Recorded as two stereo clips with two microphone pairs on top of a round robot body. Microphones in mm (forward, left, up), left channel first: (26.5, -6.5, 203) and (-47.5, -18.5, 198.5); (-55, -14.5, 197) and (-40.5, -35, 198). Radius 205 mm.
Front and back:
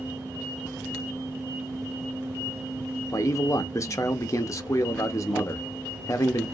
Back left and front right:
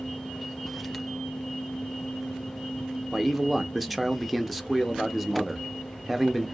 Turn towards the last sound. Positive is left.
turn(degrees=40)